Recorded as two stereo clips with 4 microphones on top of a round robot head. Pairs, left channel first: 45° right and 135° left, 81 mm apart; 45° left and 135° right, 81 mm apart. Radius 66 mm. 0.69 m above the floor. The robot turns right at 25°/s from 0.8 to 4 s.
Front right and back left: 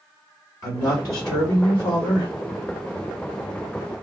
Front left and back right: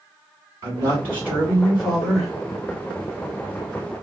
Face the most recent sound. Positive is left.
turn(degrees=0)